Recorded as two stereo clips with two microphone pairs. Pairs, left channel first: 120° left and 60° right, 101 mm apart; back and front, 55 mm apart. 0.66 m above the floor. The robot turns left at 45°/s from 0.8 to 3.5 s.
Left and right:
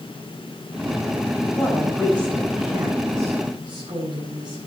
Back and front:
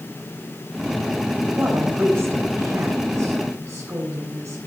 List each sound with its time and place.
1.6 s a woman speaking: 55° left, 4 m; by 4.6 s 30° right, 4 m